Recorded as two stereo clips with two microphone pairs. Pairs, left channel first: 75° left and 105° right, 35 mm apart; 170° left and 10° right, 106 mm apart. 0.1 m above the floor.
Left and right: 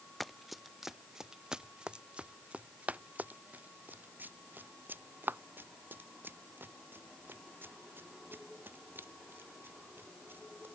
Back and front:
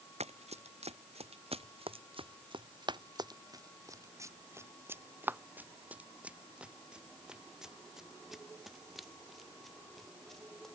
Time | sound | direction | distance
0.2 | running footsteps | 10° right | ?